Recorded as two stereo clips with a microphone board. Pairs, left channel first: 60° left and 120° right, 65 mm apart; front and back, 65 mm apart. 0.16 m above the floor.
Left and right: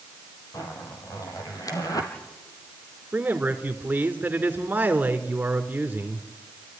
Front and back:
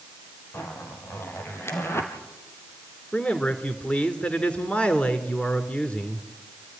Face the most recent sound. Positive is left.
turn(degrees=-65)